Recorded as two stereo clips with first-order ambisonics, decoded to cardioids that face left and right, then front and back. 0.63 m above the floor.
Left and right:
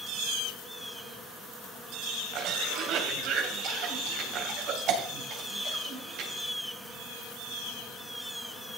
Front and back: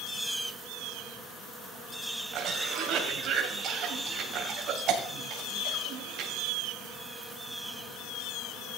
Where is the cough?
130° right, 2.5 m.